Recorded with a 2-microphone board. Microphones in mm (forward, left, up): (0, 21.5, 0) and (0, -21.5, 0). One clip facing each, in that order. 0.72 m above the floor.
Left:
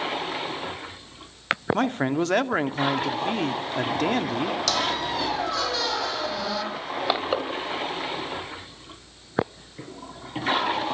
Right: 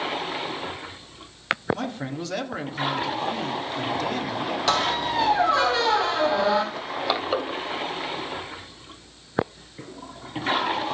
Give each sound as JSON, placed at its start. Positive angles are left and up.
{"t": 1.7, "sound": "a man speaking", "side_deg": 50, "distance_m": 1.6}
{"t": 4.7, "sound": "a squeak", "side_deg": -25, "distance_m": 3.5}
{"t": 6.7, "sound": "crushing", "side_deg": 5, "distance_m": 3.5}